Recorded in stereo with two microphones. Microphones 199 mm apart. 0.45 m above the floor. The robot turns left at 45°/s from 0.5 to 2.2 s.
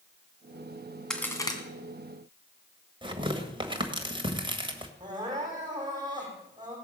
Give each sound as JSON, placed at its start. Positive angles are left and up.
{"t": 1.1, "sound": "a crack", "side_deg": 5, "distance_m": 2.0}
{"t": 3.0, "sound": "tearing paper", "side_deg": -25, "distance_m": 1.6}
{"t": 5.0, "sound": "crying", "side_deg": -20, "distance_m": 5.5}